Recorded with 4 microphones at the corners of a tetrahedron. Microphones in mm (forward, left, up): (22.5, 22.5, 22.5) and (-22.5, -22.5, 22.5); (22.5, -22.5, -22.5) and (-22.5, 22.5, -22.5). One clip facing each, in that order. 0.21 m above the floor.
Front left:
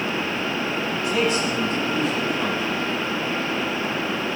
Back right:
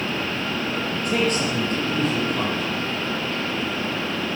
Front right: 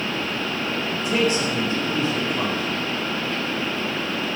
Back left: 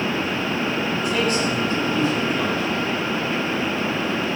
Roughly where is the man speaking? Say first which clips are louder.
Even, front right 2 dB; right.